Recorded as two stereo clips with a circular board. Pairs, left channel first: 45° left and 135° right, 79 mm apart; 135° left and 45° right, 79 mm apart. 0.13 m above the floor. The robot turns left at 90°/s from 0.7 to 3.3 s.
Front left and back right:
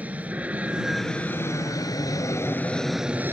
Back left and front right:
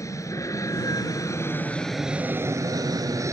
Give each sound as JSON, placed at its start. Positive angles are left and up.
{"t": 0.0, "sound": "an aircraft", "azimuth_deg": 160}